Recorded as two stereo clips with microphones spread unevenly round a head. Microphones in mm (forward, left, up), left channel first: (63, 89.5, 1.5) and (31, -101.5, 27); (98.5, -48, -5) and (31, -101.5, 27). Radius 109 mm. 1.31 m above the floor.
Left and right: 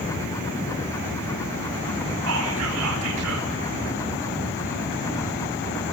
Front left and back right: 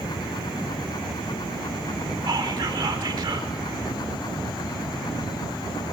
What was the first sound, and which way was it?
Whispering, 105° right.